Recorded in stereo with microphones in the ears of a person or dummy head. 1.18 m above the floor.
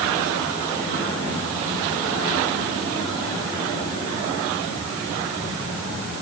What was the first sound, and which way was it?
Only background noise.